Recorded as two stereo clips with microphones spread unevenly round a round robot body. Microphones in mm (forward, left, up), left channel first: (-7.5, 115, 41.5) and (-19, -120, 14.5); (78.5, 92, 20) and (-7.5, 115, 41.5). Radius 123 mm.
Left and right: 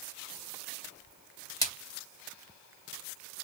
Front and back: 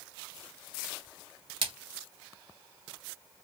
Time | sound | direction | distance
1.6 | a splash | 165° left | 2.5 m